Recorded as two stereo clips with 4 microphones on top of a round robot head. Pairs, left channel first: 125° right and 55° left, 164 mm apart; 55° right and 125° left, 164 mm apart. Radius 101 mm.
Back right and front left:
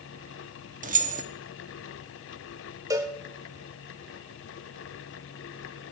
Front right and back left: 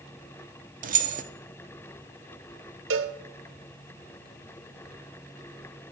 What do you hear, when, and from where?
0.8 s keys jangling: 90° left, 1.0 m
2.9 s a cowbell: 125° left, 0.7 m